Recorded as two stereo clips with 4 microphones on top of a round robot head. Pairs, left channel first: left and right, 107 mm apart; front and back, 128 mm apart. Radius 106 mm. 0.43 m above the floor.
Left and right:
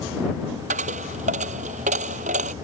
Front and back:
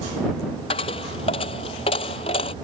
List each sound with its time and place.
0.7 s a dropped coin: 60° right